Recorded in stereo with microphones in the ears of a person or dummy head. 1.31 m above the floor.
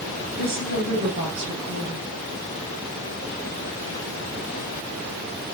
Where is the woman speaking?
30° right (ahead or behind), 3.5 m.